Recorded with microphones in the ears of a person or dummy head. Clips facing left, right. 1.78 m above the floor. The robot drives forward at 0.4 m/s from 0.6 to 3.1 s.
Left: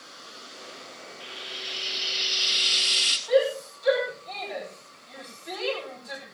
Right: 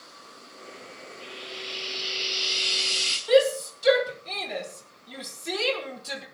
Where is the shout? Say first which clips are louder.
Right 3 dB; 40° right (ahead or behind), 6 m.